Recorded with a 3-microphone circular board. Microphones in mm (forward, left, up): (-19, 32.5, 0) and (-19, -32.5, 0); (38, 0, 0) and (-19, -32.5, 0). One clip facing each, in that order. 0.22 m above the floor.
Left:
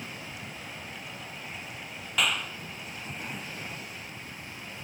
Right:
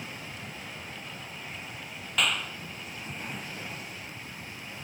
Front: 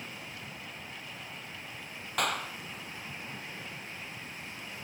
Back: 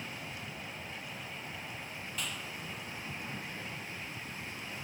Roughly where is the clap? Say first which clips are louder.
Even, front 11 dB; ahead.